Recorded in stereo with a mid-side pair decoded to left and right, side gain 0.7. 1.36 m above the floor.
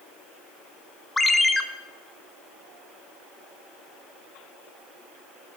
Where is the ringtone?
10° left, 0.8 m.